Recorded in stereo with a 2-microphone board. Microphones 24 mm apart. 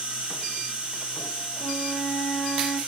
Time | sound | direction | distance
0.0 | an insect | 40° right (ahead or behind) | 2 m
1.6 | a flute | 15° left (ahead or behind) | 1.9 m